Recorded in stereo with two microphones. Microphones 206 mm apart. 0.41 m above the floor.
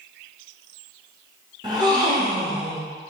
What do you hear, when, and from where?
1.6 s a gasp: 20° right (ahead or behind), 1.0 m